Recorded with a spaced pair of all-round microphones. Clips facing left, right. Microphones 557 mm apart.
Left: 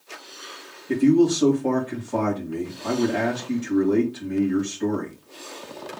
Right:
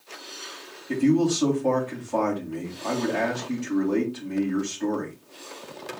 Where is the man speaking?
40° left (ahead or behind), 2.5 m.